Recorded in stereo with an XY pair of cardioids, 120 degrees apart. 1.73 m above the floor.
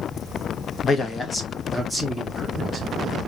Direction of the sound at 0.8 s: 40° left.